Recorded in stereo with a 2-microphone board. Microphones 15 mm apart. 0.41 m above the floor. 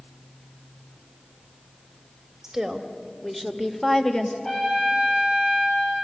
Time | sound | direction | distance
2.4 | a woman speaking | 30° right (ahead or behind) | 1.8 m
4.4 | a trumpet | 60° left (ahead or behind) | 7 m